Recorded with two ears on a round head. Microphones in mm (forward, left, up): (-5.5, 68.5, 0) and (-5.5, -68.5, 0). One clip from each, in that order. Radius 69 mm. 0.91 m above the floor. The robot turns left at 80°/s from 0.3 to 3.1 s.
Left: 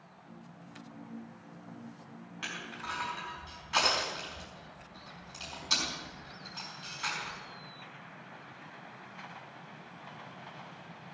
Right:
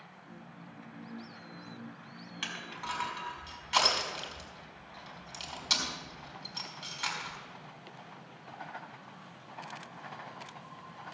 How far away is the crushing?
About 4.5 m.